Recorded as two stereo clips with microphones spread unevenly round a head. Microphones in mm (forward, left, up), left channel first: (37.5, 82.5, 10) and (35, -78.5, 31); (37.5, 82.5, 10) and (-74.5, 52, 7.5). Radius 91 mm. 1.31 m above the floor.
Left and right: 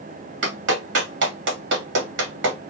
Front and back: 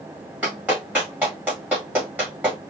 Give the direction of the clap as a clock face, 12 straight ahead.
3 o'clock.